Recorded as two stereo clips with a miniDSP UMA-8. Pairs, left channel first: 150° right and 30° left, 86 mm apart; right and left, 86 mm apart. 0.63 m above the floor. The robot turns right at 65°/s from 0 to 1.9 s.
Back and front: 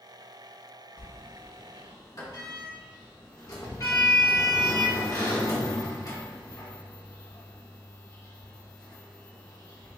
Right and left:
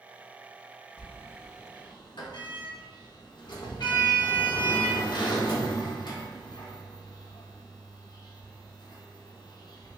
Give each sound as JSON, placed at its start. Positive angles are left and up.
{"t": 1.0, "sound": "a sliding door", "azimuth_deg": -165, "distance_m": 0.9}